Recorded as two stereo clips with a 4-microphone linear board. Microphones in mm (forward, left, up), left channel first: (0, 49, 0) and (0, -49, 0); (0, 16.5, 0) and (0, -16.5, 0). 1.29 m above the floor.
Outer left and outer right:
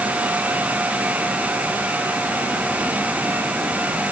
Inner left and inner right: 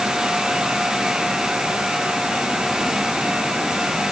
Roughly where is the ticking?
I don't hear ticking.